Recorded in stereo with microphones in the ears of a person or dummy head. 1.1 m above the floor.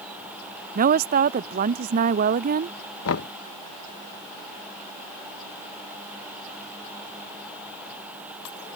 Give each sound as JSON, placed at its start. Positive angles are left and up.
{"t": 0.8, "sound": "a woman speaking", "side_deg": -45}
{"t": 3.0, "sound": "knocking", "side_deg": 75}